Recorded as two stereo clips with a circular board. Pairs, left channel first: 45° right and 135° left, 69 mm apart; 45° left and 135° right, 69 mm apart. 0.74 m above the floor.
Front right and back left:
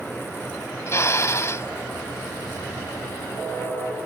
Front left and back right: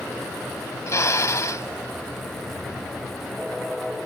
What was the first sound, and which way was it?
A drill, straight ahead.